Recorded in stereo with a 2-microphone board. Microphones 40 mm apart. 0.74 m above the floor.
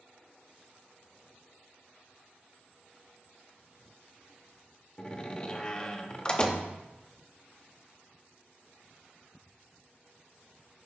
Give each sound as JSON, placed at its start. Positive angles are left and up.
{"t": 5.0, "sound": "a door slam", "side_deg": 20, "distance_m": 0.8}